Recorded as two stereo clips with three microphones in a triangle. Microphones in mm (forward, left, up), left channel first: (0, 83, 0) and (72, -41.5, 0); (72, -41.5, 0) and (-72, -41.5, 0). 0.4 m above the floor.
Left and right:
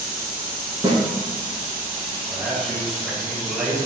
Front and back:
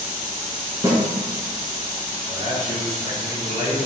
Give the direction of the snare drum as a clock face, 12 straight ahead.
4 o'clock.